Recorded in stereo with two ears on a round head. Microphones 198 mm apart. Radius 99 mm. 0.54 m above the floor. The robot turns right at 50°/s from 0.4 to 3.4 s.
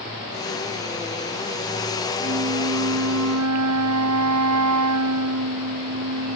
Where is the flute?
140° right; by 6.4 s 80° right.